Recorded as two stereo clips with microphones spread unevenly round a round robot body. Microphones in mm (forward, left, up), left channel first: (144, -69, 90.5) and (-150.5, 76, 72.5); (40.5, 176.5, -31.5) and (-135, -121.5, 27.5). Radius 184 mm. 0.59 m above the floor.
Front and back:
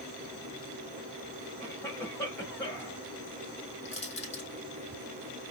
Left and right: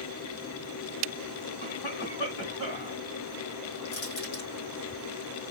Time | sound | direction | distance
1.6 | a cough | 55° left | 3 m
3.9 | crushing | 45° left | 3.5 m